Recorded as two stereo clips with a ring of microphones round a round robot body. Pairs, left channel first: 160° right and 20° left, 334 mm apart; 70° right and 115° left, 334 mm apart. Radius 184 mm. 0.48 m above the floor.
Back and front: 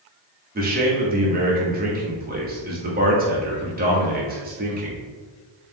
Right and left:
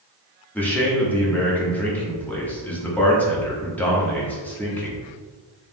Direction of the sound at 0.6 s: 10° left.